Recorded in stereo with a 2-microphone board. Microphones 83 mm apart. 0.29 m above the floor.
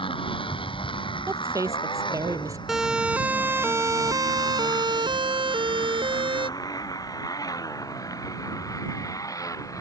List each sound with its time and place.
0.0 s a motorcycle: 85° left; by 9.8 s 40° left (ahead or behind)
1.3 s a woman speaking: 40° right (ahead or behind)
2.7 s a siren: 5° right (ahead or behind); by 6.5 s 75° right (ahead or behind)